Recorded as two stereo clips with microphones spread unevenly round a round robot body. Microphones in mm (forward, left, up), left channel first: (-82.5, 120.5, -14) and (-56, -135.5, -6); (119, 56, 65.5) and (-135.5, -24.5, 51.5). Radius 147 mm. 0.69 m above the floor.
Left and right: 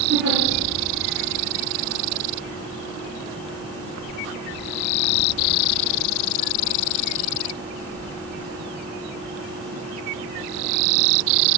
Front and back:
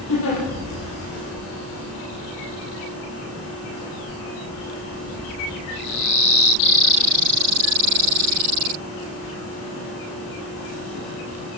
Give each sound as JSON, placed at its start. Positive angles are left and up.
{"t": 0.1, "sound": "a giggle", "azimuth_deg": -25, "distance_m": 7.5}